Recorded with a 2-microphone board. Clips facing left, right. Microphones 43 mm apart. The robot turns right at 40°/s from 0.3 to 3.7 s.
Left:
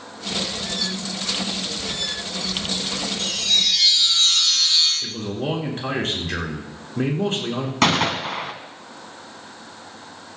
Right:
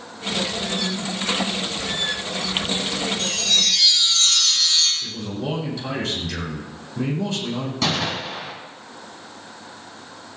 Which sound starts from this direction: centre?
A chime, at 3.2 s.